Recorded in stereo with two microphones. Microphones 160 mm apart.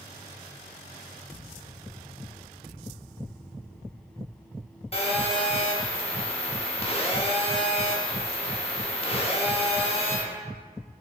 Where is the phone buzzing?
35° left (ahead or behind), 0.6 m.